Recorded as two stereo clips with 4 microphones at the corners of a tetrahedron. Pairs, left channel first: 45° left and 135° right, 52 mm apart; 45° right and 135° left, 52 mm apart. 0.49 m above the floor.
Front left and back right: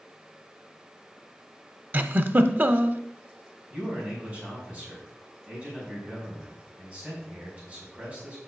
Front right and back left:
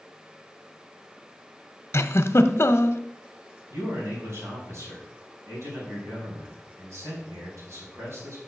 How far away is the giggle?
About 0.5 m.